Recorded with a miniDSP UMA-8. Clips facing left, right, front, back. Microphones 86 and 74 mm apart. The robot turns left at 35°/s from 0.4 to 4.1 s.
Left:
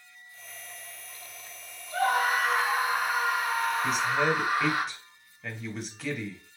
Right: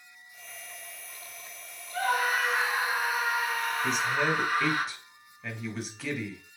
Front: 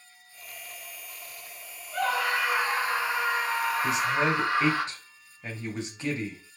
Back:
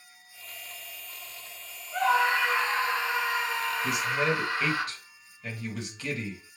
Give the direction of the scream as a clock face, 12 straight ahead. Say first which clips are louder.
Left 2 dB, back 3 dB; 9 o'clock.